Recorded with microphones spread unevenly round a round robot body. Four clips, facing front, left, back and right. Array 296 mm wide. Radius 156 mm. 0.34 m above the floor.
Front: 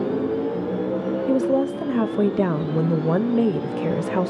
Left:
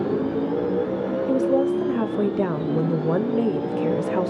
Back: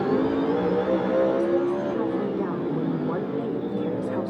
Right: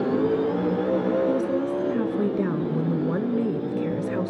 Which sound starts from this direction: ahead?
A woman speaking, at 1.3 s.